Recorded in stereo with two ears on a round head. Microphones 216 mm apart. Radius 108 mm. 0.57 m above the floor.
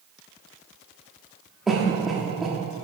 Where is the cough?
Centre (ahead or behind), 0.9 m.